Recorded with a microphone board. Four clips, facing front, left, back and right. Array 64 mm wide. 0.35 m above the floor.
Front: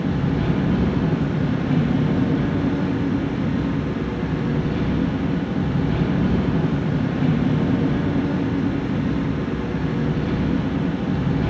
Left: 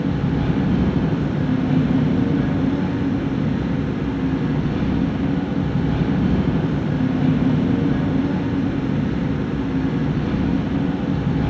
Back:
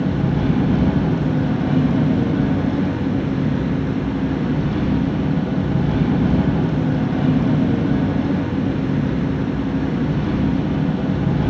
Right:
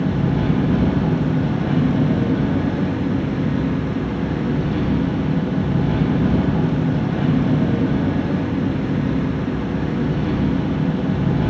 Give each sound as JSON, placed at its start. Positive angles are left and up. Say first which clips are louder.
{"t": 0.0, "sound": "an engine running", "louder": "right 1 dB, back 2 dB", "azimuth_deg": -125, "distance_m": 6.5}